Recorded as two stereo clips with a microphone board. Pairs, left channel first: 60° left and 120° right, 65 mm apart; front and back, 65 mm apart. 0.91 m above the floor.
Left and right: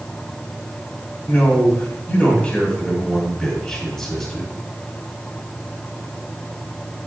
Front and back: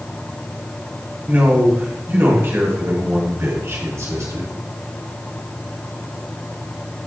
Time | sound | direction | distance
1.3 | a man speaking | 120° left | 5 m